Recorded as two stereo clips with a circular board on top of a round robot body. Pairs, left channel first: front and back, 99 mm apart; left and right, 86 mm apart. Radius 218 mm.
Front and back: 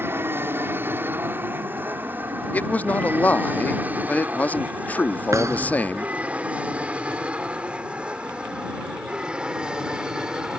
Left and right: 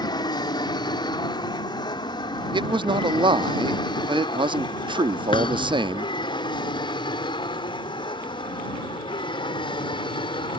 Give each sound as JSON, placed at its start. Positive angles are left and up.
{"t": 0.0, "sound": "an aircraft", "azimuth_deg": 115}
{"t": 2.5, "sound": "a man speaking", "azimuth_deg": -75}
{"t": 5.3, "sound": "a thud", "azimuth_deg": 120}